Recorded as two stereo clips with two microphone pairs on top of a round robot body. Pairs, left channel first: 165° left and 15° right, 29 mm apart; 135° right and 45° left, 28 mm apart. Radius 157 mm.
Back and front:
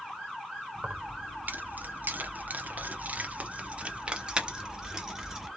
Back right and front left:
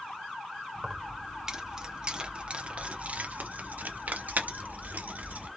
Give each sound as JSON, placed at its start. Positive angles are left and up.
{"t": 0.8, "sound": "keys jangling", "azimuth_deg": -35, "distance_m": 1.6}